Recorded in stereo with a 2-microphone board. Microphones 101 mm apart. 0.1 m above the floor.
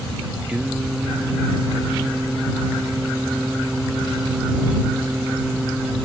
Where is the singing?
10° right (ahead or behind).